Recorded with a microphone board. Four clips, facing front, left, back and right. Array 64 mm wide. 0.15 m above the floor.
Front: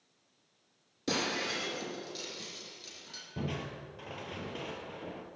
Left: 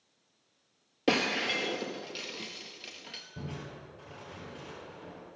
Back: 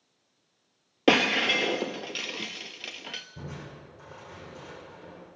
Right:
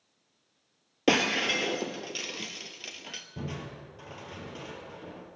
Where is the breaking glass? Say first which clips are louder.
Right 3 dB, back 11 dB; 170° right, 0.5 m.